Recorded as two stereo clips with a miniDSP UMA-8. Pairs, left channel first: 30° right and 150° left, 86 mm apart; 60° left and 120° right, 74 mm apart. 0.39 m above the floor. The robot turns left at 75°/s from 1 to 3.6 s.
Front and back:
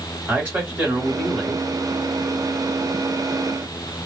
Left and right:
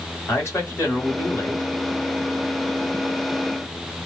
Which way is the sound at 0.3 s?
90° left.